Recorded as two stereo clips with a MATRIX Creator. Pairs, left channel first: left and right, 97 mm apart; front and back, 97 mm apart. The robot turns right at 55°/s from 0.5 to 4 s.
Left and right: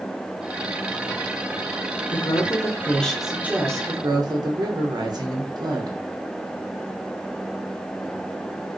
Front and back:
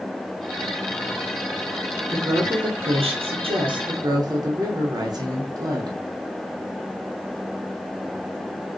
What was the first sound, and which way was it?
A woman speaking, 120° left.